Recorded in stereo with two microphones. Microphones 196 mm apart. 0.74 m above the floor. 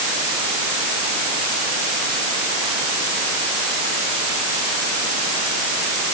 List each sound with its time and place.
Only background noise.